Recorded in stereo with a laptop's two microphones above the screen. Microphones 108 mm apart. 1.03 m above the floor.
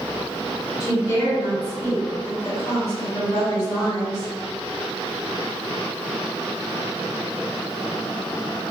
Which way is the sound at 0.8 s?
40° left (ahead or behind).